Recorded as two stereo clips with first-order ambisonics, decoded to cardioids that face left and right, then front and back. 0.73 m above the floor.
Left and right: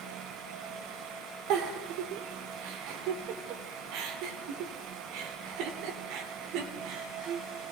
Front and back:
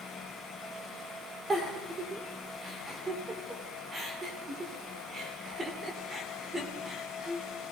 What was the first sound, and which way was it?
A giggle, 105° right.